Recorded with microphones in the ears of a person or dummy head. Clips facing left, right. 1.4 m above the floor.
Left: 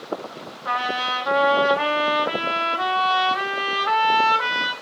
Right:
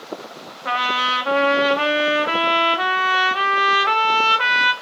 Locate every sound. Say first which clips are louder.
0.7 s a trumpet: right 2 dB; 40° right (ahead or behind), 0.5 m